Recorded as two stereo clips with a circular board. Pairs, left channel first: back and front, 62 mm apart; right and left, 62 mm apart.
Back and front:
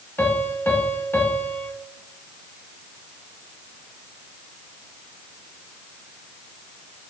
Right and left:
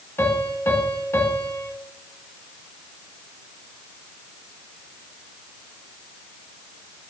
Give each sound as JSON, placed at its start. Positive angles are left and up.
{"t": 0.2, "sound": "a piano", "azimuth_deg": -135, "distance_m": 1.4}